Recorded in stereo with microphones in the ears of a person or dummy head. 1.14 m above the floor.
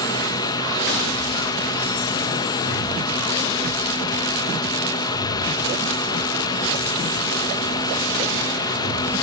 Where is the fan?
15° left (ahead or behind), 1.1 m.